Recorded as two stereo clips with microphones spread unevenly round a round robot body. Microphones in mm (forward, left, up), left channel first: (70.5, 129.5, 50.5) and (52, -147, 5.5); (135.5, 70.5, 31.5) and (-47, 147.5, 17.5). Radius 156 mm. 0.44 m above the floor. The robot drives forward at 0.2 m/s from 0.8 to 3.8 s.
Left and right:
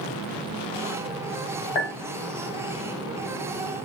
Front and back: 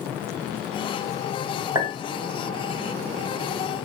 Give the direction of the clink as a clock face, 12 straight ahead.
9 o'clock.